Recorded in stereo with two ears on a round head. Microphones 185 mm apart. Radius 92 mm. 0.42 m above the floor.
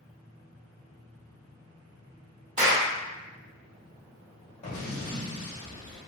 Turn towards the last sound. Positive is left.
turn(degrees=40)  # may be behind; listen again after turning